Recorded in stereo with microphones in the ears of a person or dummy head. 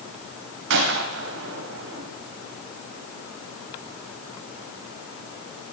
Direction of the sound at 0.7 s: 65° right (ahead or behind).